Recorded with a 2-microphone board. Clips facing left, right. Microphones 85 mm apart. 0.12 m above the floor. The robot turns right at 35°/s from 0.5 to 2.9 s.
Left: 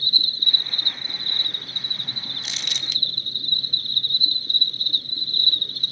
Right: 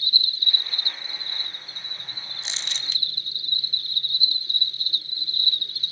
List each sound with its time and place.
0.0 s an insect: 40° left, 0.7 m; by 5.9 s 125° left, 0.7 m
2.4 s crumpling: 25° right (ahead or behind), 0.7 m; by 3.0 s 35° right (ahead or behind), 0.7 m